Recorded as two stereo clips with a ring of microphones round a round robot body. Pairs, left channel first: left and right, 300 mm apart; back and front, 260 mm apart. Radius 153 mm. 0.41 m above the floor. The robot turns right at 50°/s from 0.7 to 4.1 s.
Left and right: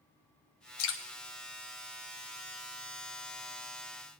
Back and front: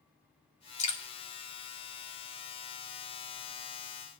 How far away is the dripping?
About 1.7 m.